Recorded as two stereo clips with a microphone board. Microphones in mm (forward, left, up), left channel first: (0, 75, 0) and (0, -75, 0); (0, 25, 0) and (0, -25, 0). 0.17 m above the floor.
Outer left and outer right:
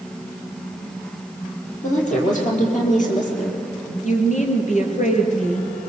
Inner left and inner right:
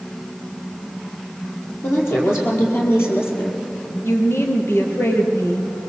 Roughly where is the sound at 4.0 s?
Left.